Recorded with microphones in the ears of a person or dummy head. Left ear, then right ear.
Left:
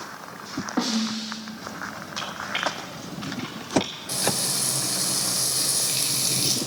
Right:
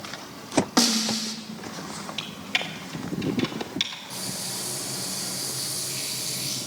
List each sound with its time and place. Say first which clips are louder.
0.8 s a snare drum: right 2 dB; 70° right (ahead or behind), 1.8 m
2.2 s typing on a keyboard: left 1 dB; 30° right (ahead or behind), 2.0 m
4.1 s frying: left 7 dB; 70° left (ahead or behind), 2 m